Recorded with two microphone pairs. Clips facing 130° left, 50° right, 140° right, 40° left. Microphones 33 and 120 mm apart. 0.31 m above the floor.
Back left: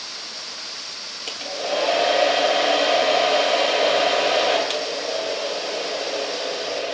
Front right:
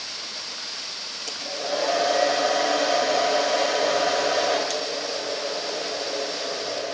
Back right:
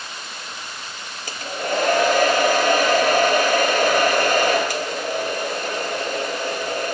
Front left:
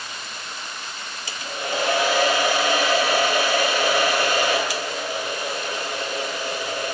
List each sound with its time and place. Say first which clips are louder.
1.3 s a hair dryer: back left 3 dB, back right 4 dB; 175° left, 3 m